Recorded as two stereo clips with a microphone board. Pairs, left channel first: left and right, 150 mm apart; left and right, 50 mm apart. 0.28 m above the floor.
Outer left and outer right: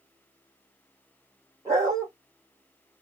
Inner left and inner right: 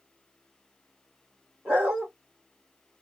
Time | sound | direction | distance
1.6 | a dog barking | 20° right (ahead or behind) | 2.5 m